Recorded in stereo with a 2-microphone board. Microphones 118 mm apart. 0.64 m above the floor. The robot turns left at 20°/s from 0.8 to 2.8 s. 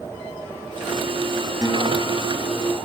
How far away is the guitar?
About 4 m.